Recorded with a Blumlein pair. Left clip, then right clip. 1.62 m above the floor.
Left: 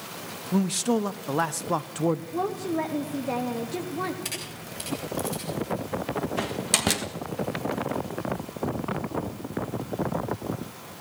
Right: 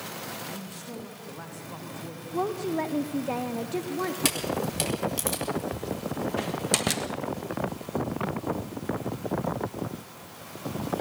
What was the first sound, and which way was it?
A man speaking, 50° left.